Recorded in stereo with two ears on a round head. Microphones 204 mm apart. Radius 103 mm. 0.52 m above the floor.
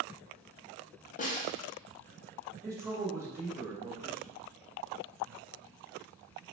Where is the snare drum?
35° left (ahead or behind), 0.7 m.